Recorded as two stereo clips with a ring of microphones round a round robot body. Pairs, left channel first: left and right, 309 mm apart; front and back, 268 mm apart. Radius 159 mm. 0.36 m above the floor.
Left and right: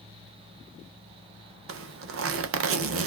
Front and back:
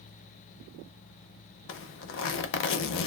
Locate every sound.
1.7 s a zipper: 45° right, 0.5 m